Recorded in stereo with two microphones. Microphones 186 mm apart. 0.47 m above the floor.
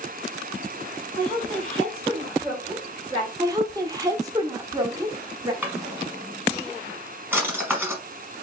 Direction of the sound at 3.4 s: 20° right (ahead or behind).